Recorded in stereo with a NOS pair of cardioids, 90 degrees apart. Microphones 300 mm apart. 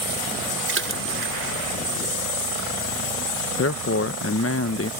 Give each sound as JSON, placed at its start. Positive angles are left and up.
{"t": 0.7, "sound": "a splash", "azimuth_deg": -40}
{"t": 3.6, "sound": "a man speaking", "azimuth_deg": 45}